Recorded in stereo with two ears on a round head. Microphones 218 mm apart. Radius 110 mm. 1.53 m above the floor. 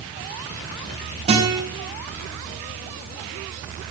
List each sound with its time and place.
1.3 s a guitar: 25° right (ahead or behind), 5.5 m